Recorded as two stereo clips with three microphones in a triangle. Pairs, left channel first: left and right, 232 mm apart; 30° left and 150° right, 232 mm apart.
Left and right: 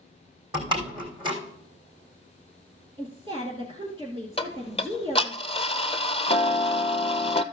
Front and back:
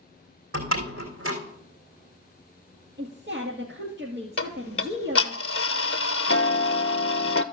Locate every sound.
0.5 s a door slam: 160° right, 3.5 m
3.0 s a woman speaking: 155° right, 1.9 m
4.4 s ticking: 30° left, 0.5 m